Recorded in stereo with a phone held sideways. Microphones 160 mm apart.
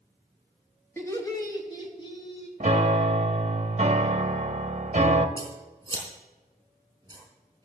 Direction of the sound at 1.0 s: 15° left (ahead or behind).